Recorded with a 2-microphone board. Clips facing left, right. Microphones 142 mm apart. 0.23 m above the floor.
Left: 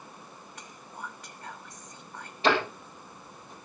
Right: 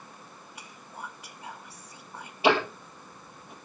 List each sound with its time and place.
0.6 s whispering: 10° right (ahead or behind), 1.0 m
2.4 s ticking: 10° right (ahead or behind), 3 m